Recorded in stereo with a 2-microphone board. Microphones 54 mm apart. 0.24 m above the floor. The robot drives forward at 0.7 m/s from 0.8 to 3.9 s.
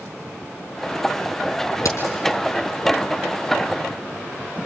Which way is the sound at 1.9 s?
80° left.